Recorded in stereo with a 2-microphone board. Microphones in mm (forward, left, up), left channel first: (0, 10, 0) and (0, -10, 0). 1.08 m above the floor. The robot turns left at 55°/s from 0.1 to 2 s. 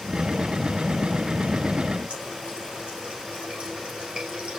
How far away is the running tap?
About 7 m.